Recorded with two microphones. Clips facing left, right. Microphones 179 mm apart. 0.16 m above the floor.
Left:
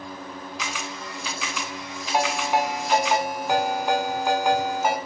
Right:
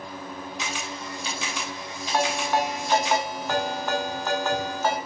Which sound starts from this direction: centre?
A ringtone, at 2.1 s.